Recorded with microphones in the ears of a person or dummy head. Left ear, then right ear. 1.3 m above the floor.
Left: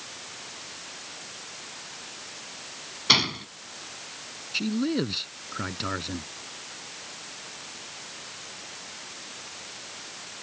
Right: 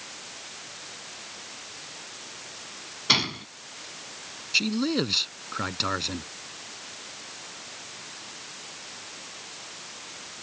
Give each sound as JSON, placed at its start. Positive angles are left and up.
{"t": 3.1, "sound": "a gunshot", "side_deg": 5}
{"t": 4.5, "sound": "a man speaking", "side_deg": -30}